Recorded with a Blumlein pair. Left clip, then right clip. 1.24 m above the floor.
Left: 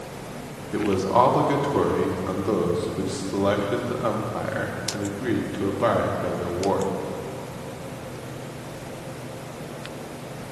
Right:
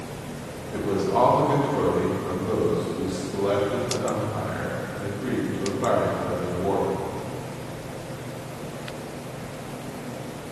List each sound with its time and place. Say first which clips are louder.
0.7 s a man speaking: left 3 dB; 20° left, 1.3 m